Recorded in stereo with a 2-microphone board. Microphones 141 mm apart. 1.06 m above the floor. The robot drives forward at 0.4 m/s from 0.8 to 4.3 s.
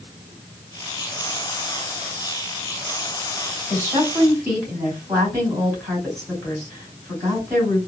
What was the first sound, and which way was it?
A woman speaking, 25° right (ahead or behind).